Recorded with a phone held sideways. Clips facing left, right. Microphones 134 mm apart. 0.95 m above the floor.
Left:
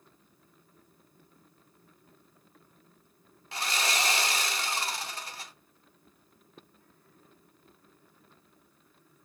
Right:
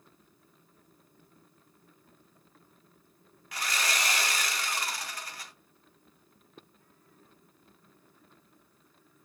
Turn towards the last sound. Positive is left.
turn(degrees=25)  # may be behind; listen again after turning